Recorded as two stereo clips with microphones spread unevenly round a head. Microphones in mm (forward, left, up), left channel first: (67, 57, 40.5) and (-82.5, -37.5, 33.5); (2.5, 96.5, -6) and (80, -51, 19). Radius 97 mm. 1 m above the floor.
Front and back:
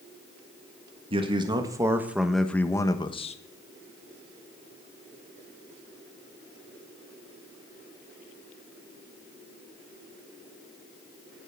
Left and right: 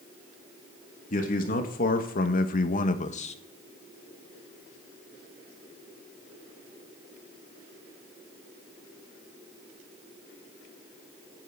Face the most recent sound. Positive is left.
turn(degrees=85)